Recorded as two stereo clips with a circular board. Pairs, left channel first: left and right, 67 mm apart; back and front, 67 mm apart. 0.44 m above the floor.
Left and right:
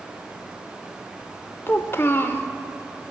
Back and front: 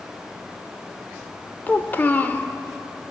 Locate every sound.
1.7 s a child speaking: 125° left, 0.5 m